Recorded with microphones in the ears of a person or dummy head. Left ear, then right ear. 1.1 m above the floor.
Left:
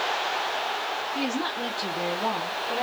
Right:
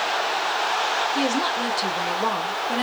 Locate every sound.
1.1 s a woman speaking: 10° right (ahead or behind), 0.6 m; by 2.8 s 60° right (ahead or behind), 1.1 m